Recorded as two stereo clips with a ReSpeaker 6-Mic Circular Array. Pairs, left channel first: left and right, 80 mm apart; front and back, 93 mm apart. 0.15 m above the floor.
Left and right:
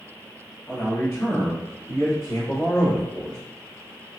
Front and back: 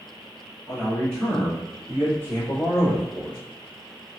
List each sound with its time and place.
0.7 s a man speaking: 75° left, 1.5 m; by 3.4 s 60° left, 2.5 m